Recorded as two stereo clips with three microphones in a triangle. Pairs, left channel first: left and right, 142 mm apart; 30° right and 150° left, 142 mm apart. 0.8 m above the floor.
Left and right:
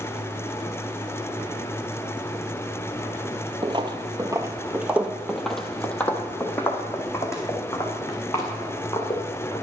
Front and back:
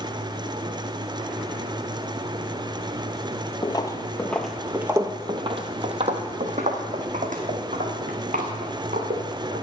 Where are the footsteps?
65° right, 1.0 m; by 9.6 s 155° left, 3 m.